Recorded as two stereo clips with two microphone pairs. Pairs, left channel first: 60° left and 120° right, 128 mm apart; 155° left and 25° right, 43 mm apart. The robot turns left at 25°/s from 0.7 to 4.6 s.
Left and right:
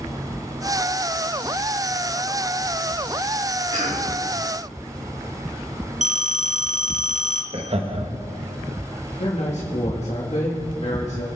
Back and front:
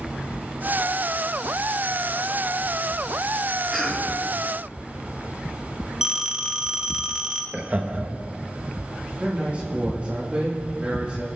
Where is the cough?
120° right, 3.5 m; by 4.1 s 130° right, 3.5 m.